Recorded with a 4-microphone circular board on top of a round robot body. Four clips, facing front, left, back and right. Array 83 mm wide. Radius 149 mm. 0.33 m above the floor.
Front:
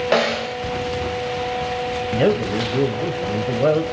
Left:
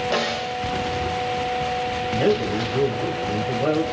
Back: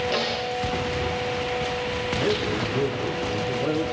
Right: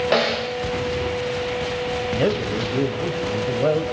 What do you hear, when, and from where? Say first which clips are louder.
0.1 s a snare drum: right 3 dB, front 7 dB; 30° right, 2.5 m
2.1 s a man speaking: left 2 dB, front 7 dB; 15° right, 2.5 m